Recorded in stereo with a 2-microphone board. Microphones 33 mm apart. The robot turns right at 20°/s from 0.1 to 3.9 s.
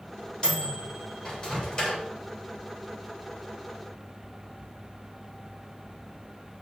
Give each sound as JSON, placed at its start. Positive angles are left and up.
{"t": 0.4, "sound": "a microwave", "side_deg": 35, "distance_m": 0.7}